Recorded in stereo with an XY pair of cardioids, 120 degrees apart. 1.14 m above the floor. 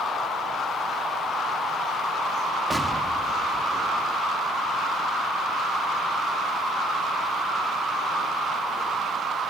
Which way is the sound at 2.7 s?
10° right.